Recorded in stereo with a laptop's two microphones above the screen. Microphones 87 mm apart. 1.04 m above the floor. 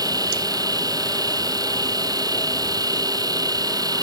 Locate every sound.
0.0 s a machine running: 50° right (ahead or behind)